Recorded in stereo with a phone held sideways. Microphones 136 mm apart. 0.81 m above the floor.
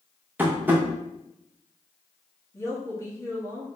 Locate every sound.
0.4 s tapping: 15° right (ahead or behind), 1.0 m
2.5 s a woman speaking: 20° left (ahead or behind), 1.4 m